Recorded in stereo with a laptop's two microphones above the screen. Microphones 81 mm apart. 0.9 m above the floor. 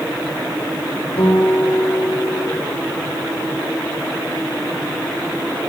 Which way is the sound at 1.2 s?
85° left.